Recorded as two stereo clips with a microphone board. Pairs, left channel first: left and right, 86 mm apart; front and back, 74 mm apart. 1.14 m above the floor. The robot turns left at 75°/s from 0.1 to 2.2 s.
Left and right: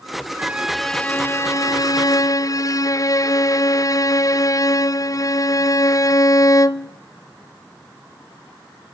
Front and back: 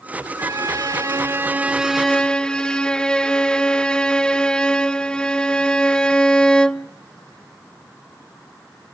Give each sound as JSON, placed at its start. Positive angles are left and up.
{"t": 0.4, "sound": "a violin", "azimuth_deg": -150, "distance_m": 0.5}